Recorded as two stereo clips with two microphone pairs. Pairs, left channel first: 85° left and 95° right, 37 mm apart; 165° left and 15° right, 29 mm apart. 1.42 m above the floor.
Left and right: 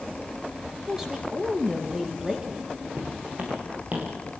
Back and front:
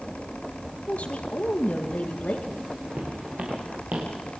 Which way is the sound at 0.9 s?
165° right.